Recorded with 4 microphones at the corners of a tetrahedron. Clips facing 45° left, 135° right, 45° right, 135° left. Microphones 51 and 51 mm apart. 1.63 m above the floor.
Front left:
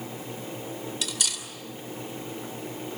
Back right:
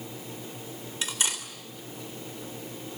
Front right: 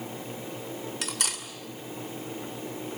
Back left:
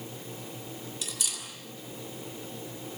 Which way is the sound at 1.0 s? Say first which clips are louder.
Back right 6 dB, front right 5 dB; 75° right.